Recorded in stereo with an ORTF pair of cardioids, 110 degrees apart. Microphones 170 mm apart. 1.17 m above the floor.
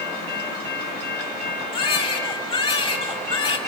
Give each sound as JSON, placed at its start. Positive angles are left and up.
{"t": 1.7, "sound": "a baby crying", "azimuth_deg": 30, "distance_m": 7.0}